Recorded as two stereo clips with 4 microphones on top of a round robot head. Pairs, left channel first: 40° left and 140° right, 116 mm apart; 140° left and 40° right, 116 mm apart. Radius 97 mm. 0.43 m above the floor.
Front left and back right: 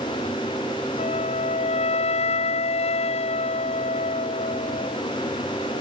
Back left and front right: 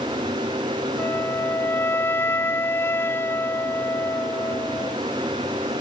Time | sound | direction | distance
1.0 | a flute | 70° left | ?